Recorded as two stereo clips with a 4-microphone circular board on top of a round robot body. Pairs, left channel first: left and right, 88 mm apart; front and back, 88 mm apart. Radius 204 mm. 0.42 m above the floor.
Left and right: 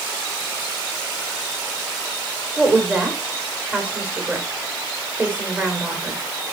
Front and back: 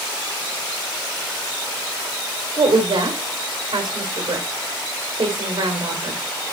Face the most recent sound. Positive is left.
turn(degrees=-160)